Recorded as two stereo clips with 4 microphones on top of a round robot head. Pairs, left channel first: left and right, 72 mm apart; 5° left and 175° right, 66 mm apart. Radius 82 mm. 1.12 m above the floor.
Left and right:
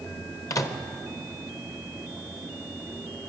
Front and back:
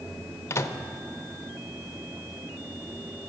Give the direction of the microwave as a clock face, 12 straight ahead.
10 o'clock.